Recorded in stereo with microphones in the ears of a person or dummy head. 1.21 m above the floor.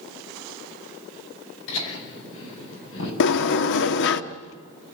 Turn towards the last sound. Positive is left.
turn(degrees=60)  # may be behind; listen again after turning